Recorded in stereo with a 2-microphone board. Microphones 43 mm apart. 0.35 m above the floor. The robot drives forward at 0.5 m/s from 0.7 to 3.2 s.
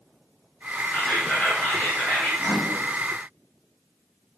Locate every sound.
0.9 s whispering: 40° left (ahead or behind), 4.5 m; by 2.3 s 45° left (ahead or behind), 4 m
2.4 s a microwave: 60° left (ahead or behind), 2 m